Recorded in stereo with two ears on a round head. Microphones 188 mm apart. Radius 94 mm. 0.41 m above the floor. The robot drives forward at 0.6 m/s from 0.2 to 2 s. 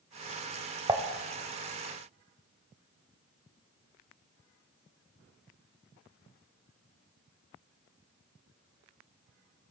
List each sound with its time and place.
0.9 s dishes clattering: 20° right (ahead or behind), 1.0 m